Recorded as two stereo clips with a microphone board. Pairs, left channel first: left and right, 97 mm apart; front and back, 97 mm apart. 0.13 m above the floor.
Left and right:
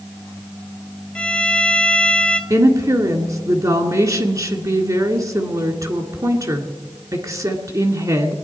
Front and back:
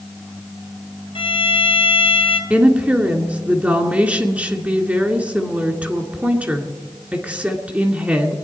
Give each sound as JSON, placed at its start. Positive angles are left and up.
{"t": 1.1, "sound": "a violin", "azimuth_deg": 10, "distance_m": 1.2}
{"t": 2.5, "sound": "a woman speaking", "azimuth_deg": -115, "distance_m": 2.0}